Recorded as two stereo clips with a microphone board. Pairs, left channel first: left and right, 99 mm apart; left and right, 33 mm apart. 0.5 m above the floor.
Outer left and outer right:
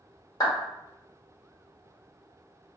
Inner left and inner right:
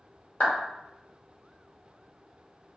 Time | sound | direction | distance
0.4 | a clap | 35° left (ahead or behind) | 1.3 m